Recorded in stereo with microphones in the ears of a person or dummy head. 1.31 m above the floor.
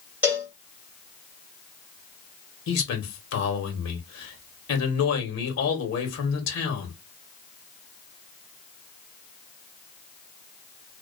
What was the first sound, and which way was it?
A cowbell, 5° right (ahead or behind).